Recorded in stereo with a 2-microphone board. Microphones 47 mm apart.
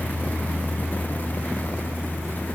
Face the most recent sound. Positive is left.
No sound to turn to.